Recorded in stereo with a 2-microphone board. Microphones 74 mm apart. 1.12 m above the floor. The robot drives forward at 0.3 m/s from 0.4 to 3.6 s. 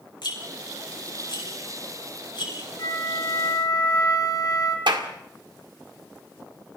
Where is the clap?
85° right, 2 m.